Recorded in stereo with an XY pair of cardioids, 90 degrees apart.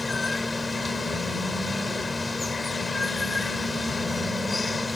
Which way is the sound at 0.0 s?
25° left.